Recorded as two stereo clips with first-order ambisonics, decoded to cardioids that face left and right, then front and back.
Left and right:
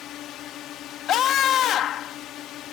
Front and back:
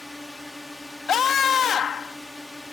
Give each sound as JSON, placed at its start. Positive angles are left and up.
{"t": 0.0, "sound": "a drone", "azimuth_deg": 85}
{"t": 1.1, "sound": "a scream", "azimuth_deg": 55}